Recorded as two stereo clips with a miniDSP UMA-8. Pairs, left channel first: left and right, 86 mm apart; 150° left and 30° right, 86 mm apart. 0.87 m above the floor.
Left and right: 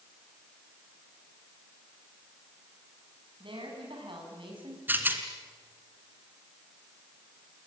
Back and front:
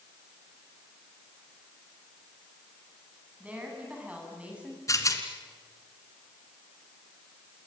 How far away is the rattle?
About 2.5 m.